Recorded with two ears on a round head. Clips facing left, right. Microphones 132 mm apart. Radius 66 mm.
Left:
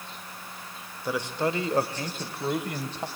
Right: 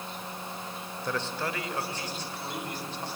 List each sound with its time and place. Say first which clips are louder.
1.1 s a man speaking: left 5 dB; 5° left (ahead or behind), 1.2 m; by 3.1 s 60° left (ahead or behind), 1.8 m